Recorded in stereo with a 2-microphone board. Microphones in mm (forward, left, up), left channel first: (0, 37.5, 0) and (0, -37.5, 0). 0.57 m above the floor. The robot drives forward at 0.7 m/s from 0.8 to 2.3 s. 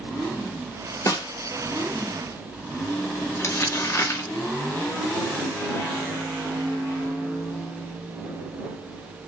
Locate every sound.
1.1 s a snare drum: 50° left (ahead or behind), 0.9 m
3.4 s crumpling: 40° left (ahead or behind), 1.2 m